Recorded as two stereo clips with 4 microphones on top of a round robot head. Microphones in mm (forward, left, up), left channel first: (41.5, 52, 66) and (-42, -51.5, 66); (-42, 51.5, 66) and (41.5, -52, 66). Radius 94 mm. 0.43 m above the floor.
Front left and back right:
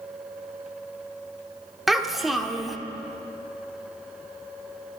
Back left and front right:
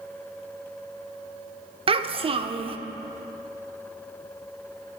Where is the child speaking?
40° right, 0.7 m.